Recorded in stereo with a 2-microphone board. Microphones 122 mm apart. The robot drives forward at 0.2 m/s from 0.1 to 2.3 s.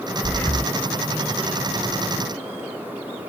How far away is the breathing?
About 1.0 m.